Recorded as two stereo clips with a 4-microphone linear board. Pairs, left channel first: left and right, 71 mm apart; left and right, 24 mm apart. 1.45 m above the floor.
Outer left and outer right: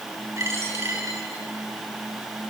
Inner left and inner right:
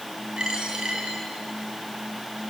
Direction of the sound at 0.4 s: 40° right (ahead or behind).